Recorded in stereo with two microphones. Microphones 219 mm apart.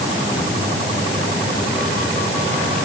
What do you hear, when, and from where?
Only background noise.